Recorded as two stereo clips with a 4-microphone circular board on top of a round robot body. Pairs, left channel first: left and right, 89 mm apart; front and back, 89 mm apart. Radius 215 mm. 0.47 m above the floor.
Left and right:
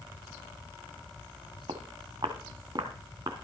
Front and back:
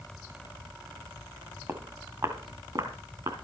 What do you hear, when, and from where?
1.7 s footsteps: 120° right, 1.7 m; by 3.3 s 140° right, 3 m